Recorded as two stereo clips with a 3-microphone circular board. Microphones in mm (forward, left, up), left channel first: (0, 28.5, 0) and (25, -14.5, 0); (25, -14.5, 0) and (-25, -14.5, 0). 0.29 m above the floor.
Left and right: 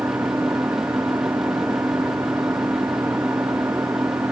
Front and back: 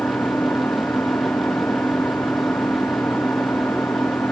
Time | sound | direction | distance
0.0 | an engine running | 35° right | ?